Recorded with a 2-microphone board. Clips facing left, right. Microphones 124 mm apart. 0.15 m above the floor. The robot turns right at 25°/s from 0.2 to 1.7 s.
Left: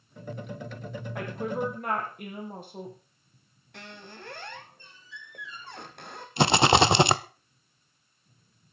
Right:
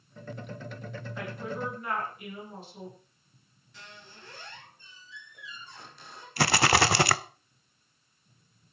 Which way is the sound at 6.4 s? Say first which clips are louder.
Left 4 dB; 20° left (ahead or behind).